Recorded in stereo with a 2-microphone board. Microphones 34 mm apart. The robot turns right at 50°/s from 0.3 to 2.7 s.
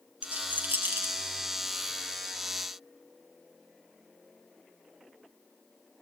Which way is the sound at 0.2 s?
40° right (ahead or behind).